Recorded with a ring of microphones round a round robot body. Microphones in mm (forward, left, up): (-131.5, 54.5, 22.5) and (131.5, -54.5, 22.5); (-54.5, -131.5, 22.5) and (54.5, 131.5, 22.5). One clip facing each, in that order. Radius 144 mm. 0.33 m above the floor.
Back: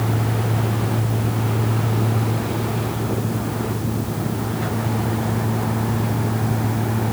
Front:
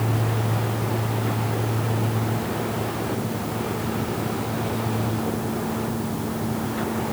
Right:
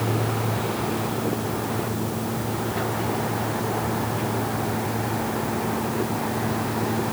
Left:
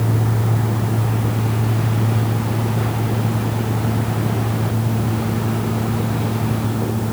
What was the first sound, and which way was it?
Only background noise.